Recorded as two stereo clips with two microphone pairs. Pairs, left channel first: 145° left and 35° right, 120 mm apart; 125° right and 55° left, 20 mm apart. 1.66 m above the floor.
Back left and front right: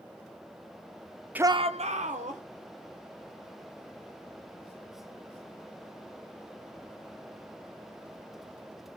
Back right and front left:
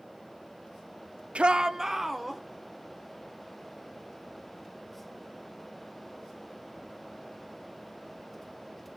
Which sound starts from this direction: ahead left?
A shout, at 1.4 s.